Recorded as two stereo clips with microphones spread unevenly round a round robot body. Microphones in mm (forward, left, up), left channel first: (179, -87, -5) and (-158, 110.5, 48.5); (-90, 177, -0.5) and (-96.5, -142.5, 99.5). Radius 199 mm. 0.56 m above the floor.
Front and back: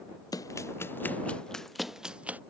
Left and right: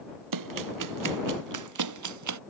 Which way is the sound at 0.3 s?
115° right.